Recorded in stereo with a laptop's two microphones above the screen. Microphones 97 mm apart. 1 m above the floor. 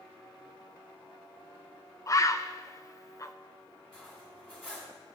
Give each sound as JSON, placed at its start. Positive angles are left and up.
{"t": 2.1, "sound": "a bird", "side_deg": 30, "distance_m": 0.6}
{"t": 3.9, "sound": "cutlery clinking", "side_deg": 15, "distance_m": 4.0}